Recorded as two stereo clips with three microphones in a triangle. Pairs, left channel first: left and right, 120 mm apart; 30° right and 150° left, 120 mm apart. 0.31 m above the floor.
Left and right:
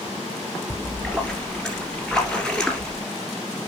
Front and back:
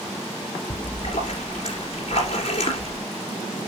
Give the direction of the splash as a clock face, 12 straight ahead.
12 o'clock.